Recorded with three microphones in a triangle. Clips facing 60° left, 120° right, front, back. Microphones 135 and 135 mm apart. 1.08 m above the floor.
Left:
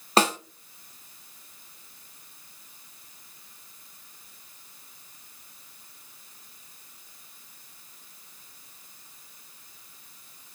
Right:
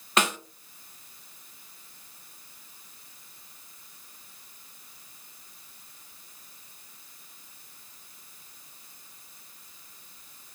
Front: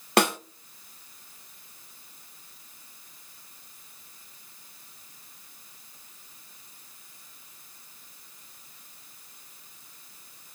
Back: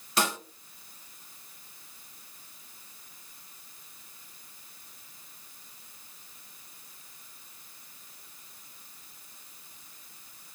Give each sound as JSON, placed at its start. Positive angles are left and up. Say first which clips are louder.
{"t": 0.2, "sound": "a snare drum", "louder": "left 4 dB, front 7 dB", "azimuth_deg": 5, "distance_m": 0.5}